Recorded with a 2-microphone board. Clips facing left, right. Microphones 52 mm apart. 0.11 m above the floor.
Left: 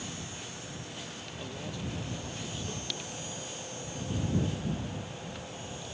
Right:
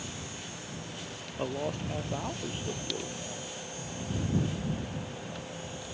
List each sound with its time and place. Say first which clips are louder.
1.4 s a man speaking: right 8 dB; 45° right (ahead or behind)